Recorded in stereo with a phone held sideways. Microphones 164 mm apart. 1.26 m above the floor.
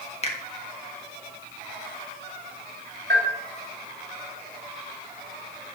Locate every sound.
0.2 s a finger snap: 35° left (ahead or behind), 1.4 m
3.1 s a bell: 75° right (ahead or behind), 2.5 m